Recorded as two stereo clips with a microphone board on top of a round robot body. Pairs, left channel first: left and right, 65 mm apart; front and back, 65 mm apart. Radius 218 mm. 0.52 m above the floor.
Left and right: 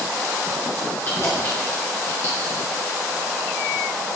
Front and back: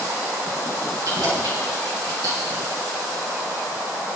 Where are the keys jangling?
145° left, 4.5 m; by 2.6 s 140° left, 6.5 m.